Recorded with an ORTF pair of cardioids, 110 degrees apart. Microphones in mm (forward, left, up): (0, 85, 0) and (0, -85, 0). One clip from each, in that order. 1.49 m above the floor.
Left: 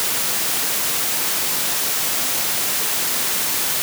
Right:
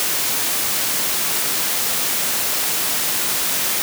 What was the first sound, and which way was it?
Only background noise.